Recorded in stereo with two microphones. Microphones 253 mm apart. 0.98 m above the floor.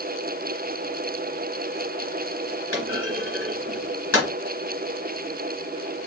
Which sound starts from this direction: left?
A clunk, at 2.7 s.